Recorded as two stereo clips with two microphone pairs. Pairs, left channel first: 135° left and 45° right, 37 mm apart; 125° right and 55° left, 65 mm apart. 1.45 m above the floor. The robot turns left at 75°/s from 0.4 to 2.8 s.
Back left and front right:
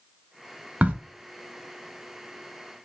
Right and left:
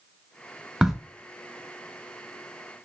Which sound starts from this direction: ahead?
A crack, at 0.8 s.